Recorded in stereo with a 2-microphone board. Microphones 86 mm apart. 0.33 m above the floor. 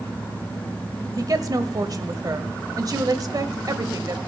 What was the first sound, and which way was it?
A woman speaking, 45° right (ahead or behind).